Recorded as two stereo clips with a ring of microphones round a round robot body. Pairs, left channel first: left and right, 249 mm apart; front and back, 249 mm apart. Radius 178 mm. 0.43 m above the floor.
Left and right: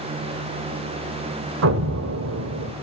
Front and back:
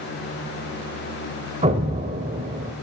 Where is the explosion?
115° right, 1.0 m.